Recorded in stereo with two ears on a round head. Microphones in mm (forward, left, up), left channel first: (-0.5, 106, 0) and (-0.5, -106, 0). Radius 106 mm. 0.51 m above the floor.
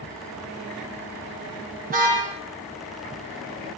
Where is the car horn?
35° right (ahead or behind), 7.5 m.